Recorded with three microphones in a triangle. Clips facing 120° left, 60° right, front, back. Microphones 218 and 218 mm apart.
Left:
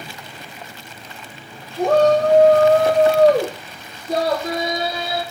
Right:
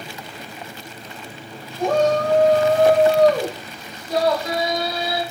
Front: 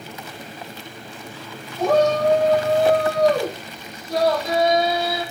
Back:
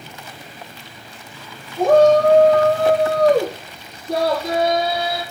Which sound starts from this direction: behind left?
A shout, at 1.8 s.